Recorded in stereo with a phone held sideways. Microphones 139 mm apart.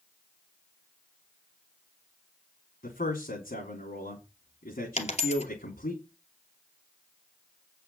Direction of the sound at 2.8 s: 85° left.